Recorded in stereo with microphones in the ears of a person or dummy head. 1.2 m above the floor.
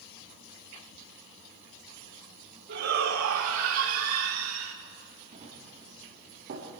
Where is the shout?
65° right (ahead or behind), 3 m; by 4.8 s 85° right, 3 m.